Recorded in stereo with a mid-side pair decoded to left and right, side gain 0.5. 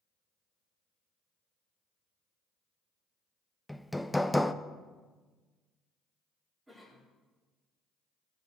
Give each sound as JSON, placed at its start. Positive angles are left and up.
{"t": 3.7, "sound": "hammering", "azimuth_deg": 5, "distance_m": 0.5}
{"t": 6.7, "sound": "a cough", "azimuth_deg": -15, "distance_m": 4.0}